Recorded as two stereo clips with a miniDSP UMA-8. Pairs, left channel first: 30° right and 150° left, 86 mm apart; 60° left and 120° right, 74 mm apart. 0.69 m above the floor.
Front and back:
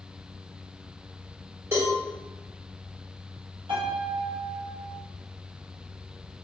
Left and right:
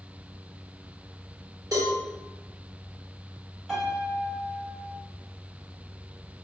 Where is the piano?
150° left, 1.3 m.